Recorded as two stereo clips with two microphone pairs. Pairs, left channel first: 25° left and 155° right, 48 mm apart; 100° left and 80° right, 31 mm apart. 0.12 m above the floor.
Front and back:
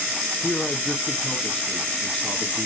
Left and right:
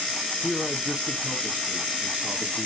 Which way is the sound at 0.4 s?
50° right.